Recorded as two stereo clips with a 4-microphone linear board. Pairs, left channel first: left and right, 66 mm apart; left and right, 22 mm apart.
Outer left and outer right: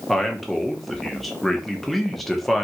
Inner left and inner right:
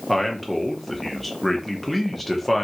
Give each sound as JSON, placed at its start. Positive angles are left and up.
{"t": 0.1, "sound": "a man speaking", "side_deg": 0, "distance_m": 0.7}